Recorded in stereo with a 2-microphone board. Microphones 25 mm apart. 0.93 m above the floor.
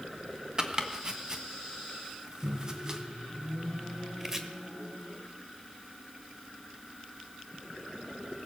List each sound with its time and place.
0.6 s chopping: 30° right (ahead or behind), 1.1 m
2.4 s a microwave: 75° right (ahead or behind), 6.5 m
4.2 s chopping: 20° right (ahead or behind), 1.2 m